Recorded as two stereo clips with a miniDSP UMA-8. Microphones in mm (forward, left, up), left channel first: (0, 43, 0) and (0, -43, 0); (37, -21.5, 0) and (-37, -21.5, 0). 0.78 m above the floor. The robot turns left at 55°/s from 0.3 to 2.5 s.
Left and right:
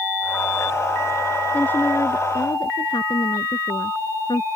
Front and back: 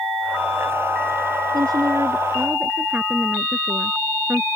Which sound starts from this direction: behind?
A woman speaking, at 1.5 s.